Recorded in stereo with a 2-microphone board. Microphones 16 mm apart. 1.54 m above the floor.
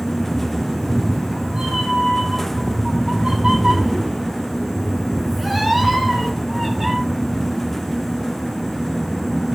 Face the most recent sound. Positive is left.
turn(degrees=5)  # may be behind; listen again after turning